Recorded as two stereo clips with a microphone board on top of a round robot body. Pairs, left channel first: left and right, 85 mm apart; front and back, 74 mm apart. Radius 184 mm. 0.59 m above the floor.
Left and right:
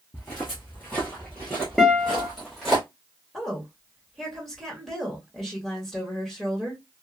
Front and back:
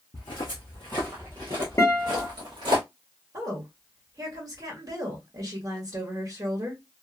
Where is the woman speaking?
175° right, 1.5 m.